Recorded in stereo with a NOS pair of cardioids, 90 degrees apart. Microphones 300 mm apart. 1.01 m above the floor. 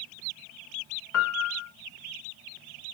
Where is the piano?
55° left, 0.7 m.